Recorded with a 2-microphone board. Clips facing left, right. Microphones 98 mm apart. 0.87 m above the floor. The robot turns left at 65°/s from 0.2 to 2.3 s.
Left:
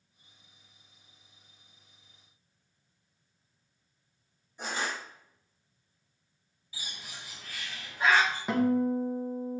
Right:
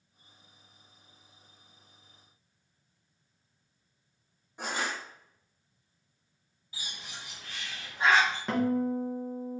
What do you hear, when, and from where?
4.6 s crushing: 70° right (ahead or behind), 2 m
6.7 s a bird: 25° right (ahead or behind), 2 m
8.5 s a guitar: 5° left (ahead or behind), 1.0 m